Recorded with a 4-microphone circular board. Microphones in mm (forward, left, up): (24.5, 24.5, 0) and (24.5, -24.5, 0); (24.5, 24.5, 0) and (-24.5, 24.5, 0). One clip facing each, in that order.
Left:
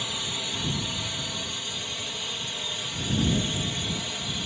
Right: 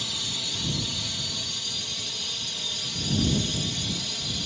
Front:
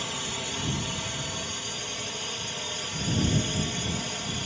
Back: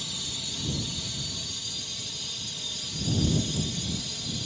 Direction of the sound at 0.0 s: 30° left.